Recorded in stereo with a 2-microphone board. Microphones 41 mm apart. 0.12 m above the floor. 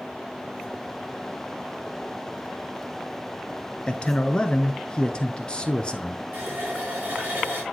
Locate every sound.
3.9 s a man speaking: 25° left (ahead or behind), 1.3 m
6.3 s a running tap: 55° right (ahead or behind), 6.5 m